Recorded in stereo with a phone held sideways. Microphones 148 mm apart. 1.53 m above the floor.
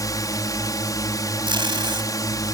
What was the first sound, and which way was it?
A drone, 25° left (ahead or behind).